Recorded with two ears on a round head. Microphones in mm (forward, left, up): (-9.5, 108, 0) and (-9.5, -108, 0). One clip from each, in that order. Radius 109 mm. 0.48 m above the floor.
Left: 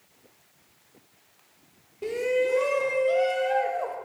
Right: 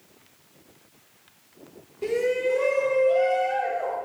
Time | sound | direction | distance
2.0 | a shout | centre (ahead or behind) | 0.7 m